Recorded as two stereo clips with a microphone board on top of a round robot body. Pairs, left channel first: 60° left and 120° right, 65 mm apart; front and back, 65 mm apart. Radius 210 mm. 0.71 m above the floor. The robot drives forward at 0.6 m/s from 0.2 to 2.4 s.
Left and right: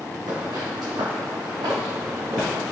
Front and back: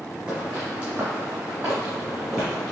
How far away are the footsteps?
About 2.0 m.